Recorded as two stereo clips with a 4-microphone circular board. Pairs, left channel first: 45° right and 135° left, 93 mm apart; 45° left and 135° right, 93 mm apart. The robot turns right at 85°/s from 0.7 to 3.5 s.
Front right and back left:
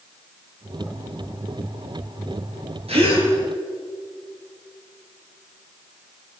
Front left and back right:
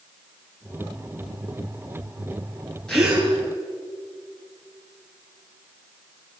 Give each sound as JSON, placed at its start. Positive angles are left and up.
{"t": 2.9, "sound": "a gasp", "azimuth_deg": 125, "distance_m": 7.5}